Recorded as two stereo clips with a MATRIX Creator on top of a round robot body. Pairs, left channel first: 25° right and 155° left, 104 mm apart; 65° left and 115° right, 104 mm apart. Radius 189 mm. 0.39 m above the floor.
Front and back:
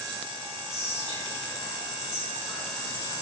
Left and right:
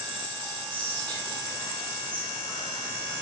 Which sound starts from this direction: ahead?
Whispering, at 0.7 s.